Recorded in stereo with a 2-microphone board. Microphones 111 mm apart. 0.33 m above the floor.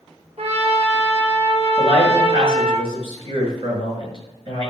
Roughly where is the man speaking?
Right.